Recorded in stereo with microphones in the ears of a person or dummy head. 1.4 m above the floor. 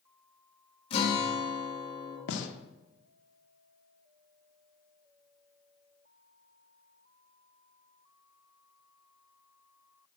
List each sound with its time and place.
0.9 s a guitar: 35° left (ahead or behind), 2 m
2.3 s a gunshot: 75° left (ahead or behind), 1.0 m